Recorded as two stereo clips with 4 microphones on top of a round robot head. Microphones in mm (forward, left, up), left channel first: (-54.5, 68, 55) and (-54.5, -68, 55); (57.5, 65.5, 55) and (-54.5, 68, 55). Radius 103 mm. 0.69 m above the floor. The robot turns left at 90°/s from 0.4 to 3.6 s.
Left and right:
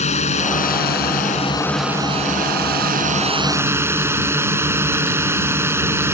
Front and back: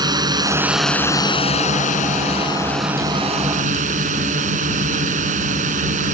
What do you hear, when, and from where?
0.0 s a drone: 125° left; by 6.2 s 160° right